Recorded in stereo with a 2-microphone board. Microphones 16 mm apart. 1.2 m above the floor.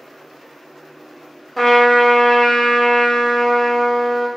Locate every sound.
1.6 s a trumpet: 10° left (ahead or behind), 0.7 m